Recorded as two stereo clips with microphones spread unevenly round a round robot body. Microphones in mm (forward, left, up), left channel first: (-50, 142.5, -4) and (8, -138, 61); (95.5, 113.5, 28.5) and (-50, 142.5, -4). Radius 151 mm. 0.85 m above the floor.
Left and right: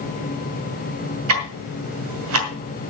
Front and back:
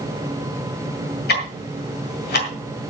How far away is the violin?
No violin in this recording.